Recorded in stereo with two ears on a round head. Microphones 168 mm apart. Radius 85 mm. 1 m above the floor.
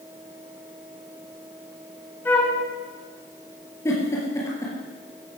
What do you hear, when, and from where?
2.2 s a flute: 10° left (ahead or behind), 2.5 m
3.9 s a giggle: 15° left (ahead or behind), 5 m